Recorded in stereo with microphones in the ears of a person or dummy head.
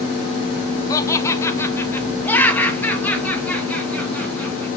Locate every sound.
0.9 s laughter: 20° left (ahead or behind), 0.8 m; by 4.7 s 10° left (ahead or behind), 3 m